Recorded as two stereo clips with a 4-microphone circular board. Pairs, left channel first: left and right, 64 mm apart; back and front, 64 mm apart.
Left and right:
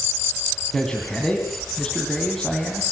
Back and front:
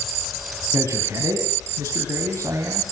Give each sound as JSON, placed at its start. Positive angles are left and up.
{"t": 0.7, "sound": "a man speaking", "azimuth_deg": 10, "distance_m": 3.0}